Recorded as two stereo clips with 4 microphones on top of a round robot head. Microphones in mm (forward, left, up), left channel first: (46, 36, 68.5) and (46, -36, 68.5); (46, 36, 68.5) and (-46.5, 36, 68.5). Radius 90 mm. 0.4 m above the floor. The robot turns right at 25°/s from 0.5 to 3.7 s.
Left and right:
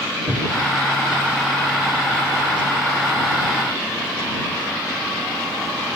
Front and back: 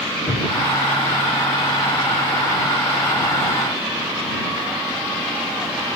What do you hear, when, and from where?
0.3 s a cupboard door: 10° right; by 0.7 s 5° right